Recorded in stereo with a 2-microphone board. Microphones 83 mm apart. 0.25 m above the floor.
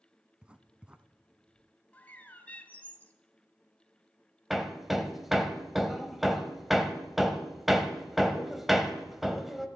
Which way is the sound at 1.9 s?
20° left (ahead or behind).